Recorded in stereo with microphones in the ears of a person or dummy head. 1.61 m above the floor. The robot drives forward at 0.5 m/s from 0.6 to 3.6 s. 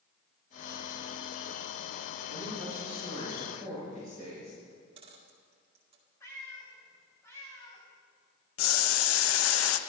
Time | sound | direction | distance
2.2 | a man speaking | 40° left (ahead or behind) | 6.5 m
4.7 | a dropped coin | 30° right (ahead or behind) | 1.9 m
6.2 | a cat meowing | 15° left (ahead or behind) | 3.5 m
8.6 | boiling | 85° left | 0.8 m